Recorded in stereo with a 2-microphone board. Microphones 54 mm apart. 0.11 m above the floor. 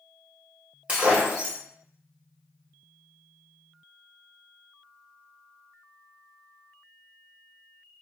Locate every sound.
0.9 s breaking glass: 25° right (ahead or behind), 1.2 m